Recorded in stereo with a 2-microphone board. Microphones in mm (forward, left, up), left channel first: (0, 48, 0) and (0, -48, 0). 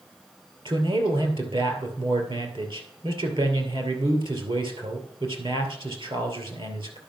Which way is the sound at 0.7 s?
55° right (ahead or behind).